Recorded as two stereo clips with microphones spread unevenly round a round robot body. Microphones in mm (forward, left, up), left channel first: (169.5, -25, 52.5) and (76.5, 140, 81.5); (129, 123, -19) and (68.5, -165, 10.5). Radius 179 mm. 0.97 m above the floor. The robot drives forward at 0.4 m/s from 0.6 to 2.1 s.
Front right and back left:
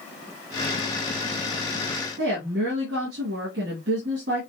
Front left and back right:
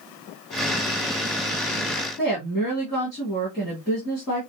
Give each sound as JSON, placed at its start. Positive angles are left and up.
{"t": 2.2, "sound": "a woman speaking", "azimuth_deg": 170, "distance_m": 2.5}